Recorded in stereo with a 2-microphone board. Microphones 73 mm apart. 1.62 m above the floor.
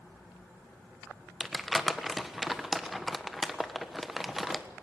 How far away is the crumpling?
About 1.3 m.